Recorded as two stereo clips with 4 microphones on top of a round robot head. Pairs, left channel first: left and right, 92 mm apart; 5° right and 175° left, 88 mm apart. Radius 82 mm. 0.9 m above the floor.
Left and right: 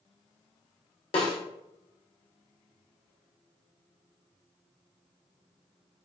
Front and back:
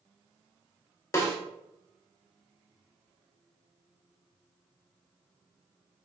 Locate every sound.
1.1 s a snare drum: 55° left, 0.9 m